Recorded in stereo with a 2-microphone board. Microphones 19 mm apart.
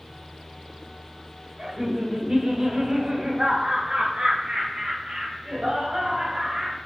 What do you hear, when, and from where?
1.6 s laughter: 30° right (ahead or behind), 2 m; by 6.8 s 55° right (ahead or behind), 3 m